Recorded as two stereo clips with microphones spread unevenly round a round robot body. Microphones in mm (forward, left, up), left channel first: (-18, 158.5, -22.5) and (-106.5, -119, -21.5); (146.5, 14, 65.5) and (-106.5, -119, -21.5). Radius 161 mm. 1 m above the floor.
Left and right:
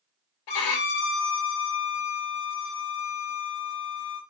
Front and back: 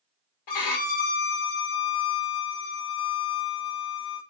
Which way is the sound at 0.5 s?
55° left.